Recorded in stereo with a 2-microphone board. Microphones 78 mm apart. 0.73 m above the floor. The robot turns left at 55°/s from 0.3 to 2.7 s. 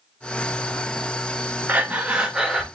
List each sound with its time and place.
1.7 s breathing: 20° right (ahead or behind), 0.6 m; by 2.6 s 5° right (ahead or behind), 0.6 m